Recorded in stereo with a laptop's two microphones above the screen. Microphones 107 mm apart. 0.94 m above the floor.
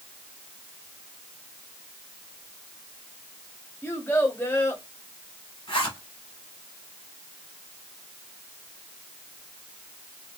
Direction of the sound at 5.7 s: 55° left (ahead or behind).